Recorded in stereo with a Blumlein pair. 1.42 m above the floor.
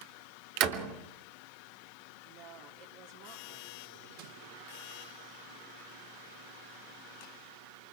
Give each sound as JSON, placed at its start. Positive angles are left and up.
{"t": 0.6, "sound": "a door slam", "azimuth_deg": -40, "distance_m": 3.0}
{"t": 2.2, "sound": "a woman speaking", "azimuth_deg": -45, "distance_m": 3.5}